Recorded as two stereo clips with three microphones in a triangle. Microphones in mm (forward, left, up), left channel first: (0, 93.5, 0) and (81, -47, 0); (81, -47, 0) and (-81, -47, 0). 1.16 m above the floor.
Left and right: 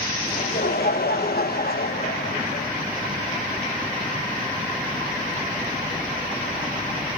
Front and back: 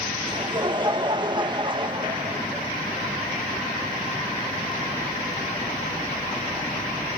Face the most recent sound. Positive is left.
turn(degrees=120)